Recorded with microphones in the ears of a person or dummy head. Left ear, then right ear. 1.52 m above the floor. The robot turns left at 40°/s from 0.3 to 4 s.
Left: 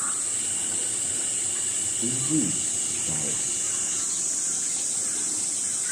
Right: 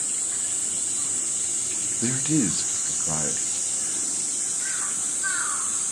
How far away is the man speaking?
About 0.6 m.